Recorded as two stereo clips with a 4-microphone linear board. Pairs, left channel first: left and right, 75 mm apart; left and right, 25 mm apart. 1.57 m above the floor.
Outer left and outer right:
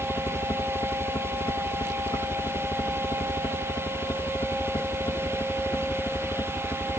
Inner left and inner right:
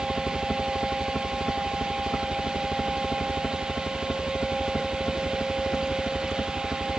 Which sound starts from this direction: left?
A helicopter, at 0.0 s.